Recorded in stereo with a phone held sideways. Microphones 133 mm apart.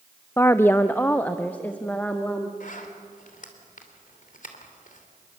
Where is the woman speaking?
20° left (ahead or behind), 0.5 m; by 2.5 s 10° left (ahead or behind), 1.7 m.